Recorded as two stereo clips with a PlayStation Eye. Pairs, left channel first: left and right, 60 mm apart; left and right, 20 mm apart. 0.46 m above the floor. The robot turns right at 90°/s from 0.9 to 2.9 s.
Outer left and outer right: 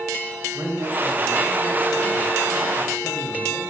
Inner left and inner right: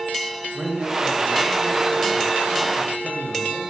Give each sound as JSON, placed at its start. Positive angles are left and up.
{"t": 0.5, "sound": "a man speaking", "azimuth_deg": -110, "distance_m": 2.5}